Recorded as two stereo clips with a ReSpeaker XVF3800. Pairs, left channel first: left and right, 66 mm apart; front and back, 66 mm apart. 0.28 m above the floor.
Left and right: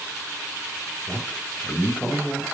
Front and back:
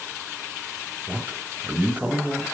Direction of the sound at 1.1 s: 135° left.